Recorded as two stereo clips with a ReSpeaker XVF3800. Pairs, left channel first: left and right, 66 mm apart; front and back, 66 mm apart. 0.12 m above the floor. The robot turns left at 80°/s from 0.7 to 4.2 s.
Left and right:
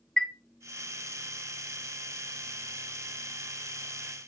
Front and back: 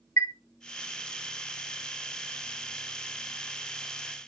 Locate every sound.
0.2 s a chime: 15° left, 0.6 m